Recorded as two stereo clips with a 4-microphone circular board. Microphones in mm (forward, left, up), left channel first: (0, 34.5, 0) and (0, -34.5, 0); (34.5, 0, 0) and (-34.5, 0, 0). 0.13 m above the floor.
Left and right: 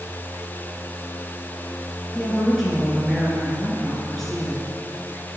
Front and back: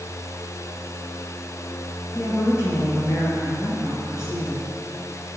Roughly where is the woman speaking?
Ahead.